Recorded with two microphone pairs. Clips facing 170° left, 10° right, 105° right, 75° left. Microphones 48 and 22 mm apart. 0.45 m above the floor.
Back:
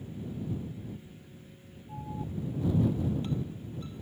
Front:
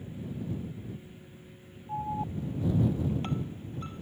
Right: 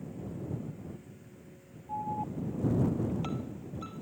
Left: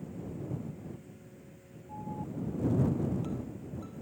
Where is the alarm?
50° right.